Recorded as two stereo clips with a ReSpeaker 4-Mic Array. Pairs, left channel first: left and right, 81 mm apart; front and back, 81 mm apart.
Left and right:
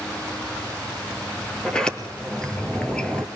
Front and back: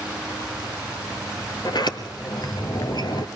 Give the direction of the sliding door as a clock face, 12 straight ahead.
12 o'clock.